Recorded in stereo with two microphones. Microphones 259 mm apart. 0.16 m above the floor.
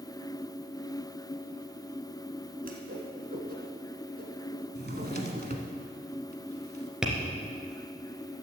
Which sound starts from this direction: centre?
Tapping, at 7.0 s.